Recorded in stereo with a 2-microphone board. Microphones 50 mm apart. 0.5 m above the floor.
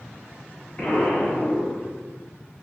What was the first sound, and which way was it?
An explosion, 30° left (ahead or behind).